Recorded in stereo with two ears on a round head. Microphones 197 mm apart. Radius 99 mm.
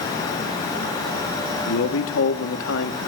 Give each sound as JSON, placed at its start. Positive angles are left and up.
{"t": 1.7, "sound": "a man speaking", "side_deg": 65, "distance_m": 2.0}